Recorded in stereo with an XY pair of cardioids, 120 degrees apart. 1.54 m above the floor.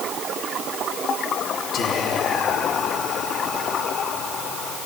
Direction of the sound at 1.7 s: 55° left.